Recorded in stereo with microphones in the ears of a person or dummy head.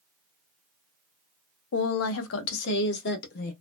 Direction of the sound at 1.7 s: 65° left (ahead or behind).